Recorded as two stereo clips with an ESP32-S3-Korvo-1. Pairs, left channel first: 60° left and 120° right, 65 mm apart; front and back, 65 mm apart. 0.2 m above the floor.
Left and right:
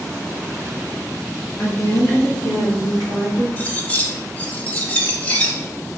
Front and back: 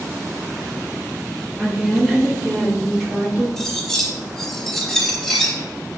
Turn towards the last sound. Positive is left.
turn(degrees=70)